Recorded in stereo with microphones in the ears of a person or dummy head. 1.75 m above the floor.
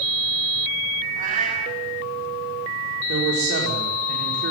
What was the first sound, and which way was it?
A cat meowing, 45° right (ahead or behind).